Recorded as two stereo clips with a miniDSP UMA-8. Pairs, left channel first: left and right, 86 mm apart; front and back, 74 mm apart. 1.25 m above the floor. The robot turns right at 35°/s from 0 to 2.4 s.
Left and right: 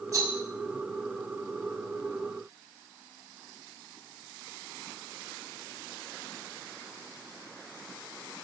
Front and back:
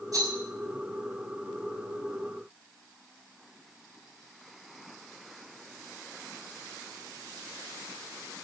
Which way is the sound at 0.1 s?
140° right.